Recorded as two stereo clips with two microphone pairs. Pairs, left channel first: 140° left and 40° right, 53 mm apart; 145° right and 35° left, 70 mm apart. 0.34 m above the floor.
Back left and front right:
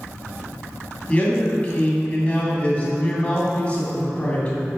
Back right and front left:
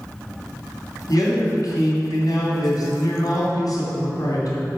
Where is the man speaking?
155° right, 2.5 m.